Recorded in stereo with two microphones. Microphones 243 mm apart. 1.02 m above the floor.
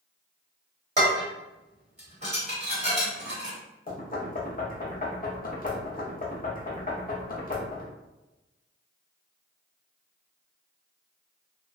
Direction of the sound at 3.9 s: 35° left (ahead or behind).